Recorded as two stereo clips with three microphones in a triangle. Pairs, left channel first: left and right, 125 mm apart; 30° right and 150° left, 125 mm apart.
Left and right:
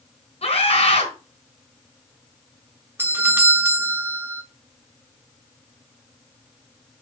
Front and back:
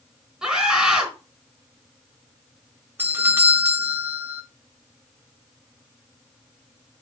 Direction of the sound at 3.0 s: 150° right.